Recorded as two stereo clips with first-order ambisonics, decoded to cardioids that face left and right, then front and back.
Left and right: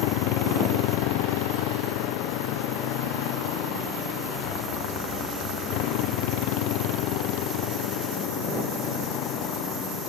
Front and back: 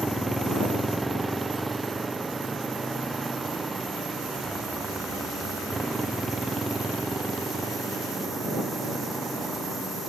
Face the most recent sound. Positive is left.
turn(degrees=105)